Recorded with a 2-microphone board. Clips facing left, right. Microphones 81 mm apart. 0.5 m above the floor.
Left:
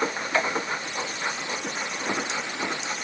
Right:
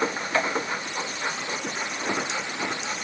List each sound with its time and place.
Only background noise.